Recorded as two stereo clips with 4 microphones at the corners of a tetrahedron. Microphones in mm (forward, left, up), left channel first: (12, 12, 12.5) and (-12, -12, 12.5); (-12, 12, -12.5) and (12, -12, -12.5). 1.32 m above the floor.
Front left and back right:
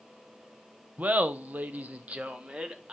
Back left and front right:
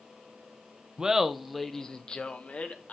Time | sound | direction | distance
1.0 | laughter | 110° right | 0.8 m